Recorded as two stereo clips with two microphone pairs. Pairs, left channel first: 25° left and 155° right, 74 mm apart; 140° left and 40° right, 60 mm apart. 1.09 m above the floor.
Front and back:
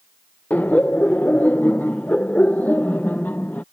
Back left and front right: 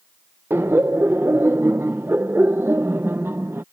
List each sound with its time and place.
0.5 s laughter: 30° right